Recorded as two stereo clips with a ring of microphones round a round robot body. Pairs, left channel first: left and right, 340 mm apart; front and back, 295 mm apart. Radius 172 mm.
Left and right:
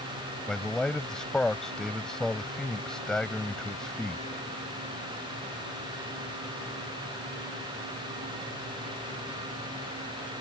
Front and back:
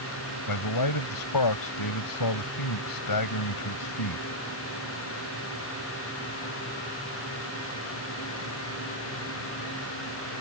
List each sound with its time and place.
0.5 s a man speaking: straight ahead